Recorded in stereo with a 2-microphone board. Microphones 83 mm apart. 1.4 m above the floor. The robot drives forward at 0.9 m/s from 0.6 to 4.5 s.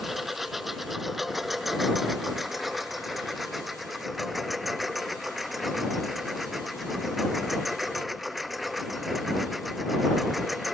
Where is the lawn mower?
5° right (ahead or behind); by 10.8 s centre (ahead or behind).